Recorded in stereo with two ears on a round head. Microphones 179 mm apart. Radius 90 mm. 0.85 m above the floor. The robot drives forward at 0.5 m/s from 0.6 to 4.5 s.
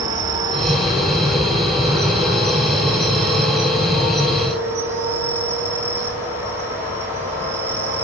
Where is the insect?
20° right (ahead or behind), 3 m; by 8.1 s 15° right (ahead or behind), 5 m.